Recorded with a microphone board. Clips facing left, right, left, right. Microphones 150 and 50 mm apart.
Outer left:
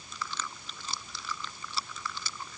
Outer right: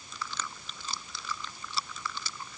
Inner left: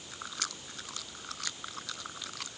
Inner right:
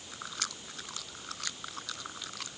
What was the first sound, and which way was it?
Only background noise.